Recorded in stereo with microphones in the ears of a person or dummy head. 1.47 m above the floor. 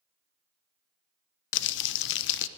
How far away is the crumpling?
About 0.7 m.